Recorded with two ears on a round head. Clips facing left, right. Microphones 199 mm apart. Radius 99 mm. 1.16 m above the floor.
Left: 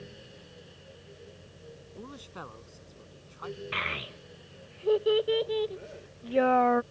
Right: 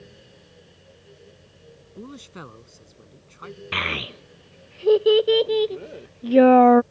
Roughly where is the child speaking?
Right.